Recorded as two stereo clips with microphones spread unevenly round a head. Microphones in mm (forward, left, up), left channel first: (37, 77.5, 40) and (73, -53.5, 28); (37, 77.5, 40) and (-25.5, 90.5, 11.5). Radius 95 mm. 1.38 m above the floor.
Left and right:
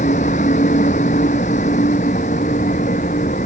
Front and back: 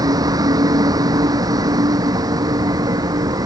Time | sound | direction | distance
0.0 | a vehicle | 155° left | ?